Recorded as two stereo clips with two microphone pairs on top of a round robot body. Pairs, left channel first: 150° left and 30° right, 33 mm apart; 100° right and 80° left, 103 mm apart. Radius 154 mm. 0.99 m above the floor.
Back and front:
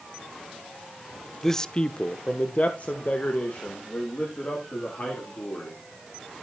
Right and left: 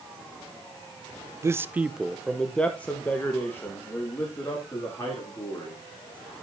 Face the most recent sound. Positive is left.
turn(degrees=-165)